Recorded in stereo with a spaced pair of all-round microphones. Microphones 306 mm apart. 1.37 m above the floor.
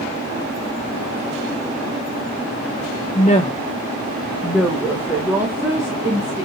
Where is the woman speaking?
25° left (ahead or behind), 0.8 m; by 6.5 s 10° right (ahead or behind), 2.5 m.